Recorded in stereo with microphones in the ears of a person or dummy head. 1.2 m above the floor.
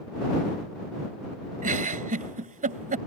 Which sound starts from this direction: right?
A giggle, at 1.6 s.